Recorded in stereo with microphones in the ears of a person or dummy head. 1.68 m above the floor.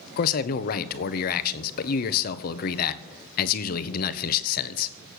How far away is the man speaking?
About 1.0 m.